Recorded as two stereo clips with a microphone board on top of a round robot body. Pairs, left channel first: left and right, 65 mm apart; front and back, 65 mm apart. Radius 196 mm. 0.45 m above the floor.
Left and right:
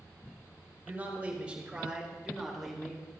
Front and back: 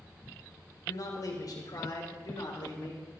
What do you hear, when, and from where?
0.9 s a man speaking: 25° right, 2.5 m; by 3.1 s 5° left, 3 m